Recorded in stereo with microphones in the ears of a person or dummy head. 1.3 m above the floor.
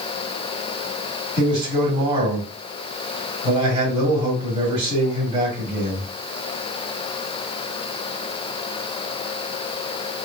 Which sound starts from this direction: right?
A man speaking, at 1.4 s.